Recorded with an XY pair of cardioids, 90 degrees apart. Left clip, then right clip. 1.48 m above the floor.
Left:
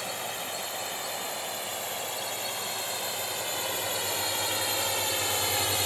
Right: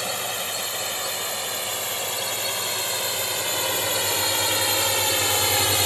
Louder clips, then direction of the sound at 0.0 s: Right 6 dB; 55° right.